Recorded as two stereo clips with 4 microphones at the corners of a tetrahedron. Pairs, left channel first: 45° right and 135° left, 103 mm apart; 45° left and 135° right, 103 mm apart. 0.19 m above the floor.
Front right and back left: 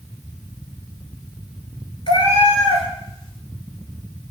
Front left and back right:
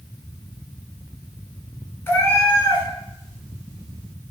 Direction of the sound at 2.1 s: 20° right.